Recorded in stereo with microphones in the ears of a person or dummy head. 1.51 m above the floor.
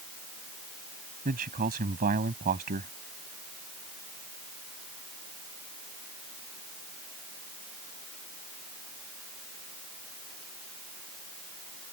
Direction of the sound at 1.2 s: 40° right (ahead or behind).